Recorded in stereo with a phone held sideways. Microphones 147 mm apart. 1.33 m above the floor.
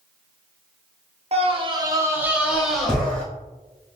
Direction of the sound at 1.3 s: 45° right (ahead or behind).